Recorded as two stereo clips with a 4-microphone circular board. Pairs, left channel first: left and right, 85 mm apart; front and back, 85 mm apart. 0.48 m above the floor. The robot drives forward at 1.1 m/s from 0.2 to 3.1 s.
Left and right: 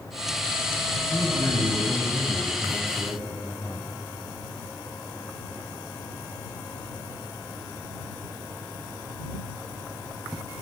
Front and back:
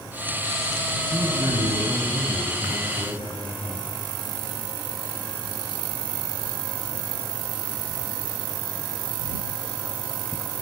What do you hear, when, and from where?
1.1 s a man speaking: 140° left, 4.5 m; by 3.9 s 150° left, 6 m